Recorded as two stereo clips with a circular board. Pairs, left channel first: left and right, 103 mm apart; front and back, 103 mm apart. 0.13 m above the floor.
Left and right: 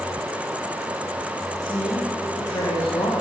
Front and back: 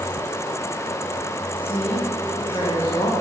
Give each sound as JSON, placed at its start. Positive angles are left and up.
{"t": 1.6, "sound": "a woman speaking", "azimuth_deg": 40, "distance_m": 8.0}